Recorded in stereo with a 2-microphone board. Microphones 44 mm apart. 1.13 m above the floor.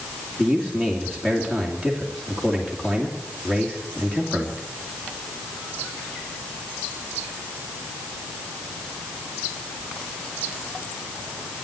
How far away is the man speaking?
About 2.5 m.